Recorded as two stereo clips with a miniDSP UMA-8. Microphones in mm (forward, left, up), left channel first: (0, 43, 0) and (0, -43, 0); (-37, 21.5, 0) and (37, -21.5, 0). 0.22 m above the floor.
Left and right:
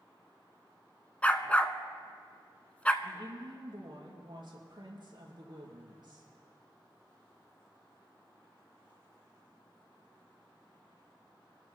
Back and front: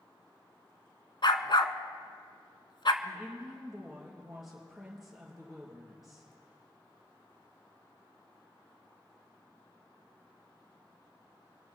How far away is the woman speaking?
About 4 m.